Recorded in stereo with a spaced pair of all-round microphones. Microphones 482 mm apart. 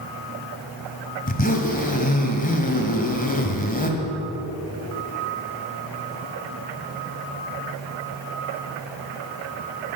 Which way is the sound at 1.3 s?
15° left (ahead or behind).